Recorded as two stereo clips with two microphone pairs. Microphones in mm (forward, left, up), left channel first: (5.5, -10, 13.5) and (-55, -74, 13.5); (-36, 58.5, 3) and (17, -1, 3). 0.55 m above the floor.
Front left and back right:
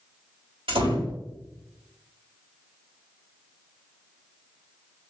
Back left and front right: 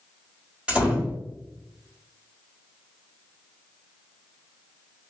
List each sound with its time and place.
0.7 s a door slam: 125° right, 1.6 m